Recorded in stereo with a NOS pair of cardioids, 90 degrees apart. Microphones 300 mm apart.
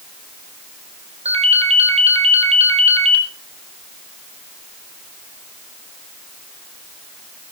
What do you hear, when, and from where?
1.2 s a ringtone: 20° right, 4.5 m